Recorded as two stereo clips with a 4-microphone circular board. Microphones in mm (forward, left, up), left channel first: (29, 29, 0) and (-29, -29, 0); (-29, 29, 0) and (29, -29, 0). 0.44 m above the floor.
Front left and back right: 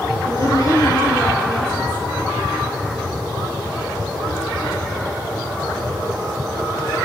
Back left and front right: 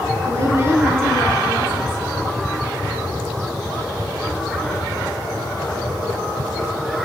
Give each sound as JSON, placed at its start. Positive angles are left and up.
{"t": 0.2, "sound": "a woman speaking", "azimuth_deg": 5, "distance_m": 3.0}